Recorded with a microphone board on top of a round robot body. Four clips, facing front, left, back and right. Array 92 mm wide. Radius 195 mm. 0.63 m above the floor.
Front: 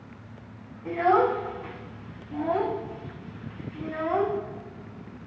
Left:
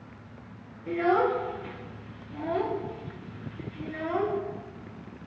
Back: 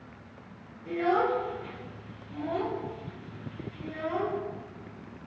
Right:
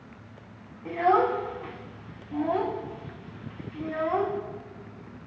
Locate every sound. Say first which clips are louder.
0.8 s a child speaking: right 2 dB, front 5 dB; 55° right, 5.5 m